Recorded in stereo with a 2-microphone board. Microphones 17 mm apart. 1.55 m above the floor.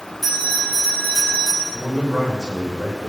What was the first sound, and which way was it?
A bell, 5° right (ahead or behind).